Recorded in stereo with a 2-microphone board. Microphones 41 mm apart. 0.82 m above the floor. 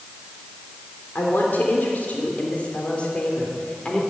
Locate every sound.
1.1 s a woman speaking: 50° left (ahead or behind), 3 m; by 4.0 s 20° left (ahead or behind), 3 m